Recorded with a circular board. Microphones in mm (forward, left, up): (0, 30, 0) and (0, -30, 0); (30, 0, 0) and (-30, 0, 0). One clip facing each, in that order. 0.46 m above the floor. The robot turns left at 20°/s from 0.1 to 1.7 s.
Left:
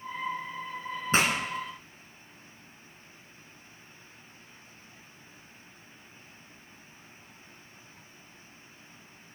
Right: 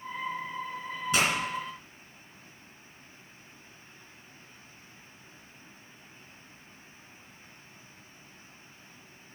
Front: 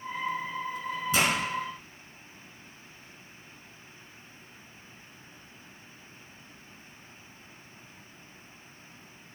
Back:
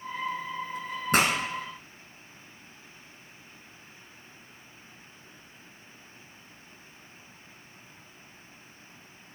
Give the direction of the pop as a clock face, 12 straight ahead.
7 o'clock.